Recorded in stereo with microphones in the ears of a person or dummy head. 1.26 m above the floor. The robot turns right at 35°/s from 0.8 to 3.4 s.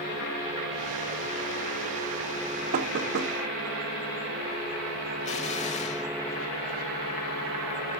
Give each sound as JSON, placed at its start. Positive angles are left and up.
{"t": 2.7, "sound": "knocking", "side_deg": -55, "distance_m": 1.4}
{"t": 5.2, "sound": "an explosion", "side_deg": 40, "distance_m": 1.7}